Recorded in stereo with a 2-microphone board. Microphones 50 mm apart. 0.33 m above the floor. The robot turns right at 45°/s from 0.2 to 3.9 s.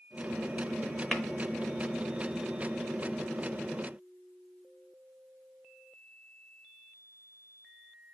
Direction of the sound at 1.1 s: 15° left (ahead or behind).